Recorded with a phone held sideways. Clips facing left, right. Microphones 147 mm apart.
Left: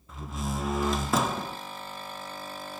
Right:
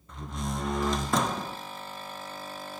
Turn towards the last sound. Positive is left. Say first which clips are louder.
# left 1 dB
turn(degrees=5)  # may be behind; listen again after turning